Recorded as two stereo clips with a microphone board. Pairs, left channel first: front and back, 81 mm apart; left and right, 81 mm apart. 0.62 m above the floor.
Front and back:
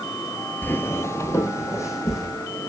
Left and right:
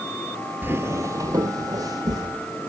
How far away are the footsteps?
About 0.6 m.